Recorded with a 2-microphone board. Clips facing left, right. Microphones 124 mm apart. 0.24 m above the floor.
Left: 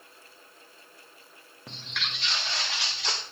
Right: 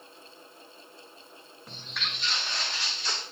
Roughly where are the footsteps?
Left.